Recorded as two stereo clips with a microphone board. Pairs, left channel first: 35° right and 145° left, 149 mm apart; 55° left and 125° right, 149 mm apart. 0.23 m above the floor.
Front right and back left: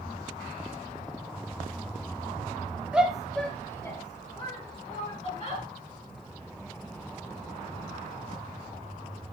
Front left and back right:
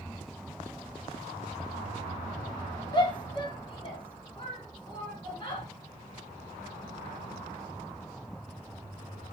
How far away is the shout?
About 1.4 m.